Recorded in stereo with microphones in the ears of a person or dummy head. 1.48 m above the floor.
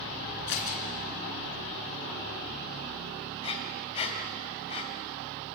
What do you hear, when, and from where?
0.5 s scissors: 60° left (ahead or behind), 4 m
3.4 s breathing: 35° left (ahead or behind), 2 m